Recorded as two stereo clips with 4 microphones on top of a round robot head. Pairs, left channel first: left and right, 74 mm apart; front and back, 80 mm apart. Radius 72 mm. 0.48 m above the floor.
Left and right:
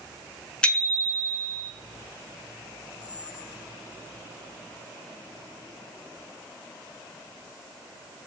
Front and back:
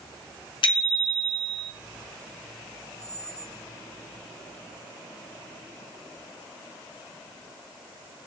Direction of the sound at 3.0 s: 160° right.